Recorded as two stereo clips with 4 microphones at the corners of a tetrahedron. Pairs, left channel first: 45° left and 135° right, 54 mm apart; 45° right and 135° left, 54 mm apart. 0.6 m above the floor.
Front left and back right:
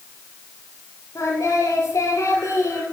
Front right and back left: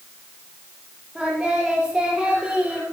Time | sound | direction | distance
1.1 | singing | 60° left | 5.5 m